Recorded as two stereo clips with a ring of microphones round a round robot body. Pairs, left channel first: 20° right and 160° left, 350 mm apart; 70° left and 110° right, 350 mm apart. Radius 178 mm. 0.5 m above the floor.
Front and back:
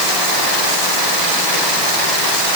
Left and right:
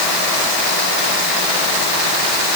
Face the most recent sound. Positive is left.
No sound to turn to.